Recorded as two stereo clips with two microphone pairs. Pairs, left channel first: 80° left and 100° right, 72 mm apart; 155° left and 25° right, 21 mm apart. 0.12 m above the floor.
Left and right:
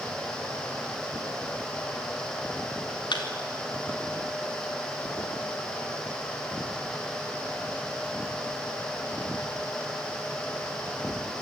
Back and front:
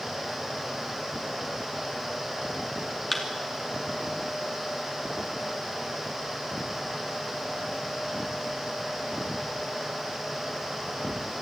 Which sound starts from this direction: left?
A thud, at 3.1 s.